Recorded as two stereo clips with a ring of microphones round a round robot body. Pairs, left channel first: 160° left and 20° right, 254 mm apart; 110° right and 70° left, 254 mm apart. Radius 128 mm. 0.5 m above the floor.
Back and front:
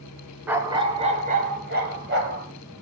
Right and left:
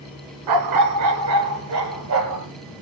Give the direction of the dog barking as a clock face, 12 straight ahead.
10 o'clock.